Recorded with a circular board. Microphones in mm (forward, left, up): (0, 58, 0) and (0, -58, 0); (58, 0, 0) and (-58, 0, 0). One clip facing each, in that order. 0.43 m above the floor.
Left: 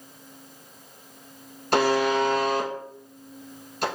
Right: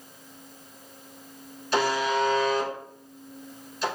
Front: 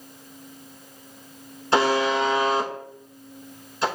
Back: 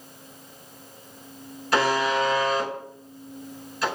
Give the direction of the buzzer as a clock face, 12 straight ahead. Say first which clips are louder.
Left 3 dB, front 2 dB; 10 o'clock.